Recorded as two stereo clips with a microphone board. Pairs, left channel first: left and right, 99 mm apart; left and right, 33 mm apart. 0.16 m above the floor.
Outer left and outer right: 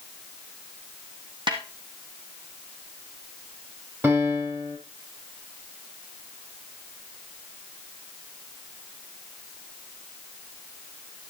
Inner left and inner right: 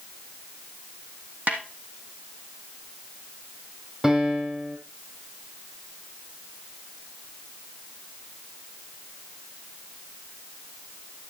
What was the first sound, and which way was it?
A snare drum, 55° right (ahead or behind).